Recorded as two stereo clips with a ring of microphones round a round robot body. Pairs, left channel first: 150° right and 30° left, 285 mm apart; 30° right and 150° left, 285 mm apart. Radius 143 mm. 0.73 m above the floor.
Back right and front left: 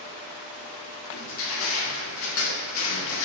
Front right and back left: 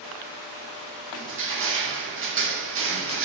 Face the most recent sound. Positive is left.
turn(degrees=-175)